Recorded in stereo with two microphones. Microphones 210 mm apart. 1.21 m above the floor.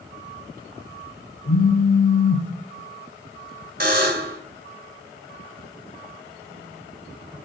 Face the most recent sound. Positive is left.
turn(degrees=-45)  # may be behind; listen again after turning